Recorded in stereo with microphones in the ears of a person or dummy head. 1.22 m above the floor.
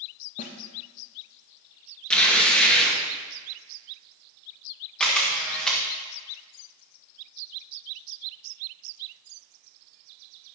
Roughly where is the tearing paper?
Centre.